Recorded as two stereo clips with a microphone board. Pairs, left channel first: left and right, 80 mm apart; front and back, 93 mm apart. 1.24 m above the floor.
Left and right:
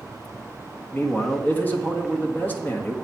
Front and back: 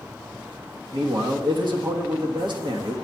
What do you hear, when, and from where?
0.9 s a man speaking: 155° left, 1.3 m